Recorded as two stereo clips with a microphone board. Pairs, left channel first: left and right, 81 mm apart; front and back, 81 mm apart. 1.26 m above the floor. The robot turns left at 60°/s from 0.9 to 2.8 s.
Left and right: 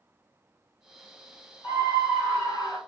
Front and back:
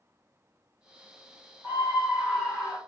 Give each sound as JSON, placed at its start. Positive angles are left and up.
{"t": 1.6, "sound": "a scream", "azimuth_deg": 125, "distance_m": 1.7}